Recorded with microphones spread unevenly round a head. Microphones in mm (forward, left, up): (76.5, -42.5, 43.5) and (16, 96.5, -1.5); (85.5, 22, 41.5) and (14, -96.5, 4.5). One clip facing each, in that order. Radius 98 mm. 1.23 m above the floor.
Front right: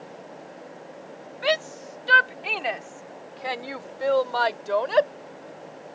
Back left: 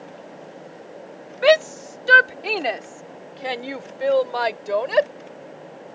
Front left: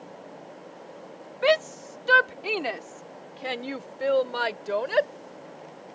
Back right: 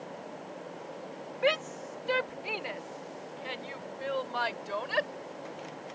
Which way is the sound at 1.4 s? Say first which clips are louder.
Back left 10 dB, front left 7 dB; 90° left.